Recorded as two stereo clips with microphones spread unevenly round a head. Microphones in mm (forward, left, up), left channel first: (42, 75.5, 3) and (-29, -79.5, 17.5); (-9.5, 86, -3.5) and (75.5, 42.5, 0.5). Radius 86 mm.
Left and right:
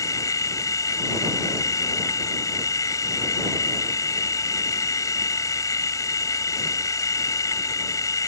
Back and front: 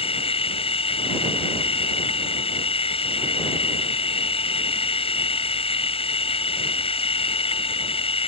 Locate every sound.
0.0 s a machine running: 140° left